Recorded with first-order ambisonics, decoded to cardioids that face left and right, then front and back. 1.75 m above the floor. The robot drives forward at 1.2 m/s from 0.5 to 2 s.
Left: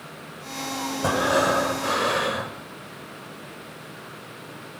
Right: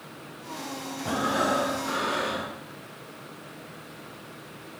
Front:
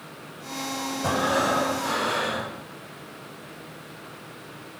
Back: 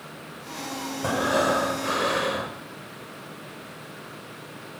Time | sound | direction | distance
1.0 | breathing | 100° left | 4.5 m